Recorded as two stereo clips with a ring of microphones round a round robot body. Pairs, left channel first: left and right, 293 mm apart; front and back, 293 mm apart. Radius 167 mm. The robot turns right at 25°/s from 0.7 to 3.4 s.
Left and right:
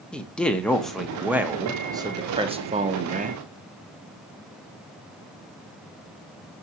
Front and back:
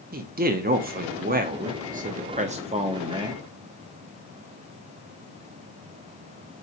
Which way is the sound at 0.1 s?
175° left.